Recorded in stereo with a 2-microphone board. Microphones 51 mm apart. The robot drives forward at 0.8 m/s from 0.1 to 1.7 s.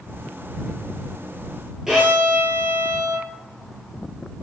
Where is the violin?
5° right (ahead or behind), 0.9 m.